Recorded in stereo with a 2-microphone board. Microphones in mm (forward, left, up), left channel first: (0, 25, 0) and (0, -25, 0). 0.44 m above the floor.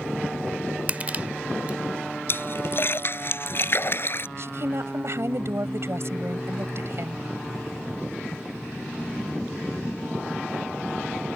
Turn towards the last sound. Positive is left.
turn(degrees=-65)  # may be behind; listen again after turning